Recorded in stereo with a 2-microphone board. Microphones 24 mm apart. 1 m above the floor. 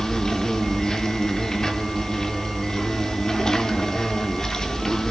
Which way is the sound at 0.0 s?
30° left (ahead or behind).